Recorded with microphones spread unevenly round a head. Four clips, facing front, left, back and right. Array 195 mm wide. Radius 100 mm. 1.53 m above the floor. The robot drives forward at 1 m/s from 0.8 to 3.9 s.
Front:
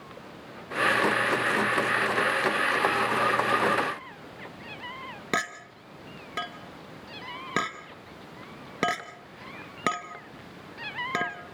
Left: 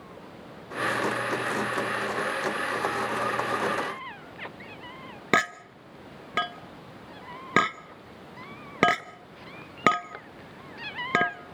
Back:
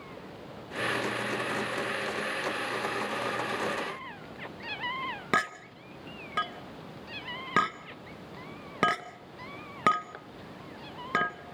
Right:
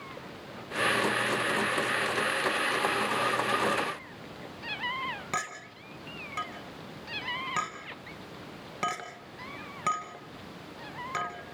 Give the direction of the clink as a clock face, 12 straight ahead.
9 o'clock.